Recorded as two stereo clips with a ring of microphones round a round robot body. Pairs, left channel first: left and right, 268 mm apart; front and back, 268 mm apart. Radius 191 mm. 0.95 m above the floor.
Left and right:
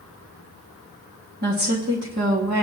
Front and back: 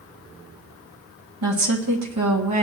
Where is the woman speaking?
150° right, 1.8 m.